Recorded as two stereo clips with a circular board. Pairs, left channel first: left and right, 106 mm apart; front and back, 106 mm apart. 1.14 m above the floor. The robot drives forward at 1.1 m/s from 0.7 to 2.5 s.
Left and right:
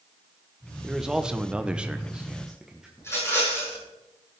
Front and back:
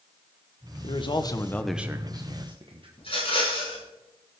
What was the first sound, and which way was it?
A man speaking, 5° right.